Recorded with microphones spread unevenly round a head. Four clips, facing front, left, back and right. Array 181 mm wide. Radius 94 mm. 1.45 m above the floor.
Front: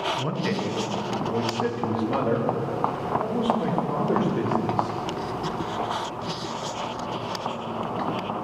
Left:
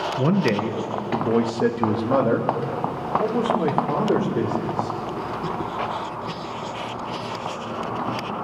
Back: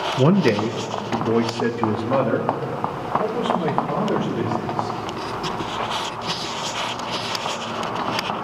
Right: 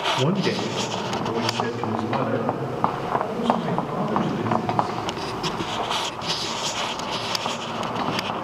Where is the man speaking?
175° left, 1.3 m; by 5.0 s 100° left, 6.5 m.